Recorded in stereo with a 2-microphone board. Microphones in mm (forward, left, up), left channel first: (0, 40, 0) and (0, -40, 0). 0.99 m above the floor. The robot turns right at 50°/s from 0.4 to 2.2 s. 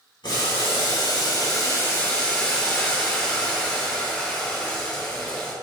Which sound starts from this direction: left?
Boiling, at 0.2 s.